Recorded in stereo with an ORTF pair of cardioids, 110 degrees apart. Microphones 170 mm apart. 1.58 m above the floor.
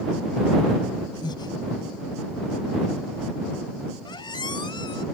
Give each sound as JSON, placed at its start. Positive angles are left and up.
{"t": 1.2, "sound": "breathing", "azimuth_deg": 25}
{"t": 4.0, "sound": "a squeak", "azimuth_deg": 25}